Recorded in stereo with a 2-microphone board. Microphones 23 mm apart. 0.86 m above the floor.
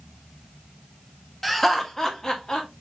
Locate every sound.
1.4 s laughter: 5° left (ahead or behind), 1.0 m; by 2.7 s 35° left (ahead or behind), 1.7 m